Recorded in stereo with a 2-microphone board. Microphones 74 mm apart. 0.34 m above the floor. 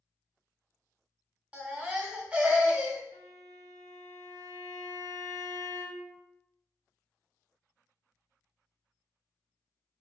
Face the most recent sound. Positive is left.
turn(degrees=-75)  # may be behind; listen again after turning